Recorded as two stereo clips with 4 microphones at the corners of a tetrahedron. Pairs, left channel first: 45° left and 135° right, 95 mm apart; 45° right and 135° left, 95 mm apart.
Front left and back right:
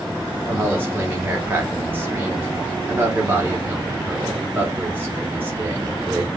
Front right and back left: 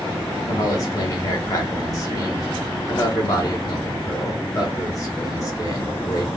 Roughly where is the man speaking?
Right.